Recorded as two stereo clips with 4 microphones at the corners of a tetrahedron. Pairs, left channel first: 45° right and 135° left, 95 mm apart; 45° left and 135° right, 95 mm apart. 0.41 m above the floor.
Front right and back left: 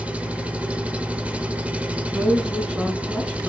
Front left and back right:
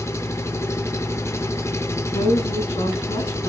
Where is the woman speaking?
50° left, 5 m.